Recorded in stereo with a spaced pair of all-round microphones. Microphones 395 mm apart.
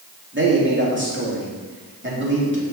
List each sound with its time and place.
0.3 s a man speaking: 30° right (ahead or behind), 2.5 m